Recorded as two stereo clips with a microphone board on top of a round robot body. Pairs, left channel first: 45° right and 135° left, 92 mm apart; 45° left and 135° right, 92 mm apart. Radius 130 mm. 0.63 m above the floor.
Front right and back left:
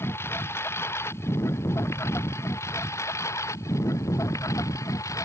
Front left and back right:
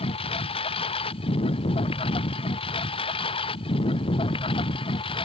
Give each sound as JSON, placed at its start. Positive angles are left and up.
{"t": 0.0, "sound": "a lawn mower", "azimuth_deg": 20}